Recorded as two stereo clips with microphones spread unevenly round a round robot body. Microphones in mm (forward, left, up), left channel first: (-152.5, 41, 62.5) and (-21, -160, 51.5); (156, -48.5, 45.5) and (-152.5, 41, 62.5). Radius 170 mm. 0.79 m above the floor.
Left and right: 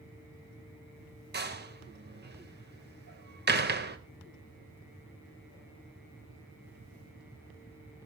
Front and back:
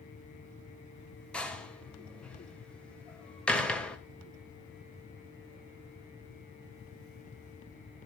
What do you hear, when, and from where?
1.3 s a door slam: 105° right, 3 m